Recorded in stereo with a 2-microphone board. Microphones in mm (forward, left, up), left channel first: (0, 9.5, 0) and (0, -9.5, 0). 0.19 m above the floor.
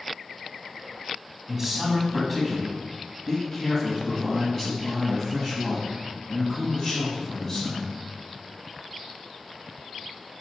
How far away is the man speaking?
About 1.1 m.